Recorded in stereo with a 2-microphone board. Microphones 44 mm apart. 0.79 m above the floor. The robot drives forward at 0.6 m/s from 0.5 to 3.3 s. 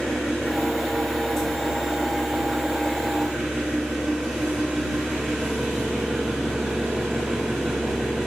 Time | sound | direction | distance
0.0 | an engine running | 10° right (ahead or behind) | 5 m